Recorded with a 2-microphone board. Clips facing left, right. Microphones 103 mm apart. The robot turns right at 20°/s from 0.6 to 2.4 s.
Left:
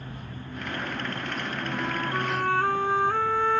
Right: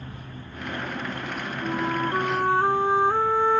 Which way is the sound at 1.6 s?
35° right (ahead or behind).